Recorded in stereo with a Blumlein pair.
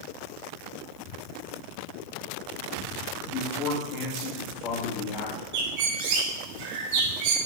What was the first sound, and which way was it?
A man speaking, 35° left.